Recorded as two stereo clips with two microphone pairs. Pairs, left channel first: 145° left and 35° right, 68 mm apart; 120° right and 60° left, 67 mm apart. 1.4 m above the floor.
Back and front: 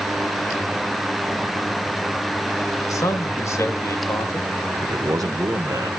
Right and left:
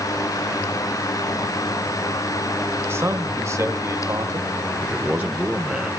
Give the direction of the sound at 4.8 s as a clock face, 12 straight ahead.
12 o'clock.